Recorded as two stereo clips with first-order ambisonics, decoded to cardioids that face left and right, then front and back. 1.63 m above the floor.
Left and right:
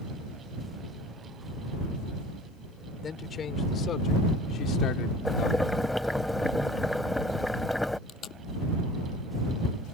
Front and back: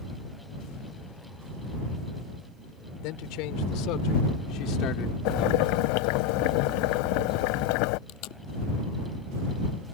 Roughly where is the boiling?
Ahead.